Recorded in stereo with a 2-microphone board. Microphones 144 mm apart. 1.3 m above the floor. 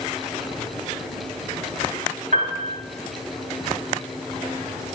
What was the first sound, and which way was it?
A piano, 70° right (ahead or behind).